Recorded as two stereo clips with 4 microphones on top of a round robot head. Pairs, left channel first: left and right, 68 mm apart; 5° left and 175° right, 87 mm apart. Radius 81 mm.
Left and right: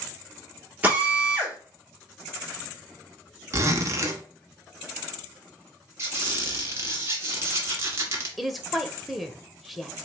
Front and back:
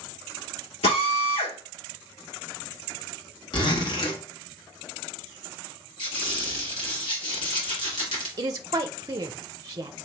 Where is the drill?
20° right, 2 m.